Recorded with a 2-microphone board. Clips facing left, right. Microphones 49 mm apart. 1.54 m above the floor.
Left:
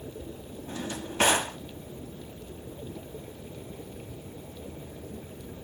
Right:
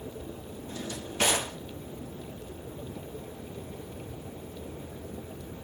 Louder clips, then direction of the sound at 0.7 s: Left 3 dB; 40° left (ahead or behind).